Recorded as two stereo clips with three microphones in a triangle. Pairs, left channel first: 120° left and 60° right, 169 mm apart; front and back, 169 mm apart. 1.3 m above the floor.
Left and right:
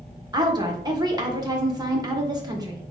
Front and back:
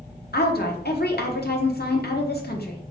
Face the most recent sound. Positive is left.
turn(degrees=5)